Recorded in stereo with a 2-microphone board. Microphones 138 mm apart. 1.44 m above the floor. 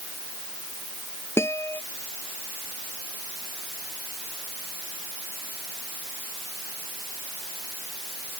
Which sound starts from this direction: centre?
A guitar, at 1.4 s.